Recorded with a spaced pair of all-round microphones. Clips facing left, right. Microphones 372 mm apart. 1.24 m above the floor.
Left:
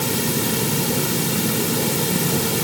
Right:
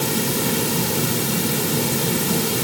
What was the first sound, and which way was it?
Only background noise.